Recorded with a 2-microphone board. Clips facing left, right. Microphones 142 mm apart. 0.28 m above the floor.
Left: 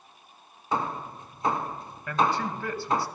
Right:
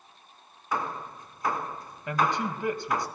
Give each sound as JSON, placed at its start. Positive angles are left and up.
{"t": 0.7, "sound": "hammering", "side_deg": 25, "distance_m": 2.0}
{"t": 2.1, "sound": "a man speaking", "side_deg": -20, "distance_m": 2.0}